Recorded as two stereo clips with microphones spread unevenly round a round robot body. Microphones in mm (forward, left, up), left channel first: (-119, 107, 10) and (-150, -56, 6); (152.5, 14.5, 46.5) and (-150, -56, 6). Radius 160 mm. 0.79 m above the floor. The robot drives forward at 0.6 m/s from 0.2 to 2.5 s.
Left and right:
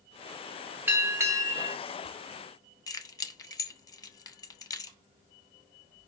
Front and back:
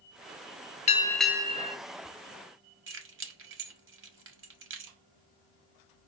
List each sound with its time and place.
0.9 s a bell: 45° right, 0.6 m; by 1.8 s 155° right, 0.7 m
2.9 s keys jangling: 150° left, 0.8 m